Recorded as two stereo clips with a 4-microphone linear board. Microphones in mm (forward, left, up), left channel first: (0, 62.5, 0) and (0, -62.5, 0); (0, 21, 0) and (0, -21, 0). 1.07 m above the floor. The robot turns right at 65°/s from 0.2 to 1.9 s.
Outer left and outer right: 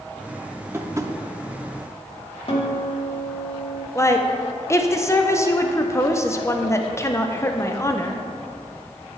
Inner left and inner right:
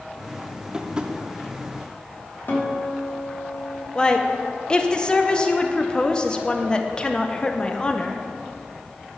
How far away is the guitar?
About 1.4 m.